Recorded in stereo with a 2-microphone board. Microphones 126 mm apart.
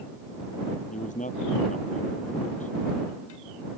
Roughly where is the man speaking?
Left.